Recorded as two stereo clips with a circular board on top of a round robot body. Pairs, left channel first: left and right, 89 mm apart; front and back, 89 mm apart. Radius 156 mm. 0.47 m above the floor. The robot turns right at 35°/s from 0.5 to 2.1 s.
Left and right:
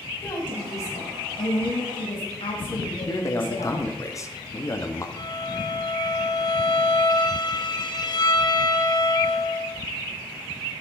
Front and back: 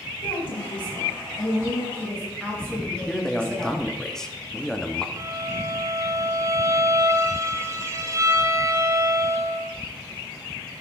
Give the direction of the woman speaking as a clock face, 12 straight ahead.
11 o'clock.